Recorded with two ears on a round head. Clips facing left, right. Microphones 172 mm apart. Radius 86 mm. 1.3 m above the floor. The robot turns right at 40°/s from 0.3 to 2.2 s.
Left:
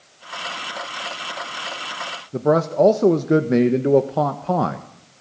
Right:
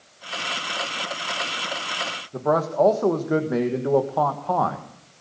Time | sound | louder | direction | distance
2.3 | a man speaking | left 4 dB | 30° left (ahead or behind) | 1.5 m